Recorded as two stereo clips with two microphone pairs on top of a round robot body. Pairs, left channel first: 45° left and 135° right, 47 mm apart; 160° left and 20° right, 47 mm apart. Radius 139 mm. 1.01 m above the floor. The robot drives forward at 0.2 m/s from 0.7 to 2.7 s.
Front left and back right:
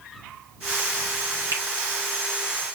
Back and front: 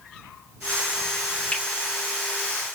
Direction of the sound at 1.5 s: 130° right.